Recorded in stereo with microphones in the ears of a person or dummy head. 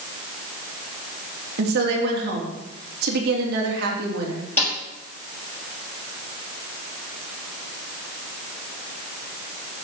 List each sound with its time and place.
1.6 s a woman speaking: 60° right (ahead or behind), 3.5 m
4.6 s a snare drum: 10° left (ahead or behind), 5.5 m